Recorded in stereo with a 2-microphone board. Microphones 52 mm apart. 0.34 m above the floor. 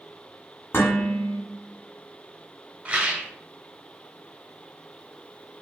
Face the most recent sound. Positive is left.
turn(degrees=-25)  # may be behind; listen again after turning